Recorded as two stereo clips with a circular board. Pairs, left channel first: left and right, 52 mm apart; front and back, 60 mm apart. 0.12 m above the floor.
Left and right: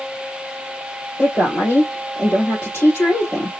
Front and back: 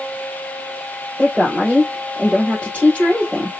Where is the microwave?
I don't hear a microwave.